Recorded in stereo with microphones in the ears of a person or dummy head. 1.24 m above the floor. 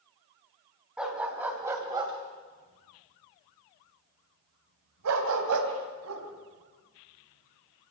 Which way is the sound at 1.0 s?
5° right (ahead or behind).